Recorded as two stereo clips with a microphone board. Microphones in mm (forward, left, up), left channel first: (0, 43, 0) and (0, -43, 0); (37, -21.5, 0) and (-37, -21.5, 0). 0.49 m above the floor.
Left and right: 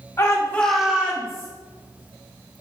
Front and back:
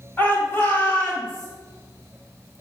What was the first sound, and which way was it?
A shout, 55° left.